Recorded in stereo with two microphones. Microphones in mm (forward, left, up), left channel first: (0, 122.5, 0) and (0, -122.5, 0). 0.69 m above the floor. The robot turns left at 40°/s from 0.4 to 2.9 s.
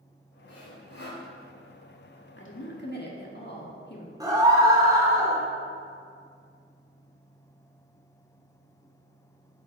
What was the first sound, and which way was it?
Sawing, 90° left.